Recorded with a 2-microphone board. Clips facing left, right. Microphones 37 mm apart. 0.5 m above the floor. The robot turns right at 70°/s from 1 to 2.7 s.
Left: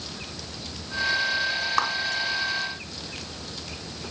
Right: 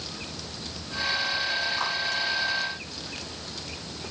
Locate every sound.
1.8 s a clap: 75° left (ahead or behind), 4.5 m; by 1.9 s 80° left, 4.5 m